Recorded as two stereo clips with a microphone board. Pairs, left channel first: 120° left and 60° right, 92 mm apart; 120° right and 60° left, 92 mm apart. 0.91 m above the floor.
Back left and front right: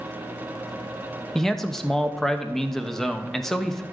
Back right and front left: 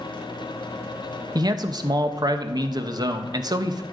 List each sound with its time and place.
1.4 s a man speaking: 35° left, 0.8 m